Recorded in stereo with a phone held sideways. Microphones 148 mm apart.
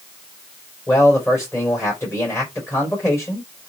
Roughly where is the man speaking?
Centre.